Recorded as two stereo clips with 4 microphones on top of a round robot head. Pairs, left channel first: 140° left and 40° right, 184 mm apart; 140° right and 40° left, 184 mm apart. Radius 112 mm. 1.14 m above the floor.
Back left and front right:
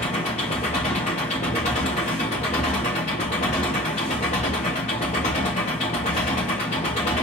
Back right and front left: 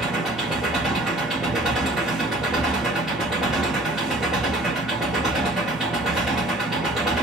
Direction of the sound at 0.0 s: 130° left.